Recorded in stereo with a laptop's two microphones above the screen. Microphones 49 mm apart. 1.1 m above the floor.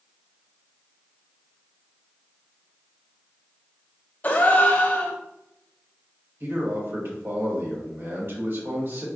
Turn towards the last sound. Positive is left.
turn(degrees=-50)  # may be behind; listen again after turning